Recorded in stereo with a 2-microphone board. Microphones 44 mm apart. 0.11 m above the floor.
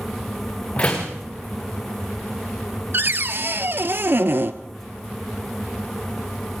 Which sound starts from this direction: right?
A cupboard door, at 2.9 s.